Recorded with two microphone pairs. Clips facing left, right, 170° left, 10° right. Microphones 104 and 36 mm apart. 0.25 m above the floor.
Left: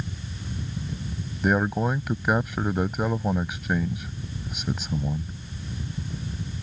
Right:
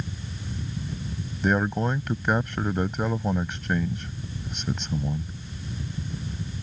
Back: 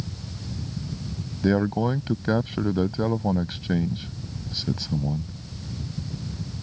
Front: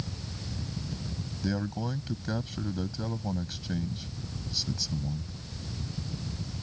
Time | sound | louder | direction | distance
1.4 | a man speaking | left 1 dB, back 11 dB | 170° left | ?